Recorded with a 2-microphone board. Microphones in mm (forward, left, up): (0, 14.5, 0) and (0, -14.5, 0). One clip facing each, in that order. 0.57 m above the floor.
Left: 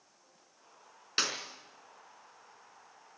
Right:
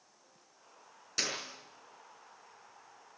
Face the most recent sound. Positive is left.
turn(degrees=40)  # may be behind; listen again after turning